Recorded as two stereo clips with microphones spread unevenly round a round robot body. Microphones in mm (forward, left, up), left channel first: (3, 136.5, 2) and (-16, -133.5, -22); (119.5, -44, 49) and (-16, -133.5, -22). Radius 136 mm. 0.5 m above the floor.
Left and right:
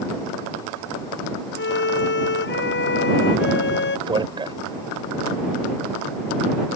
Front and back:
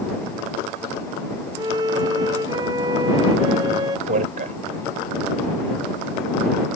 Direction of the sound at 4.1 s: 165° right.